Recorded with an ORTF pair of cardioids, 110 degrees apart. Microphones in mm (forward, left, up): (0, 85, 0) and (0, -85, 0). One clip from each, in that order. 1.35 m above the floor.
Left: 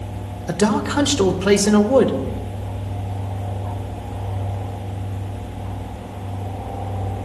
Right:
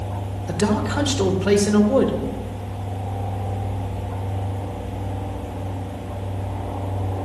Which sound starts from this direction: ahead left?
A man speaking, at 0.5 s.